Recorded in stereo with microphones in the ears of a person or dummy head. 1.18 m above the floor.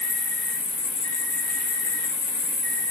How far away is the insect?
About 2.5 m.